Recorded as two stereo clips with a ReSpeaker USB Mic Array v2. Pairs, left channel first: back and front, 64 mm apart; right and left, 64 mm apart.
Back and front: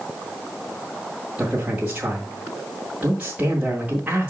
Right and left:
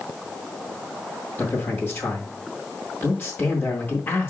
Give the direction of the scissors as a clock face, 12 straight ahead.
I don't hear scissors.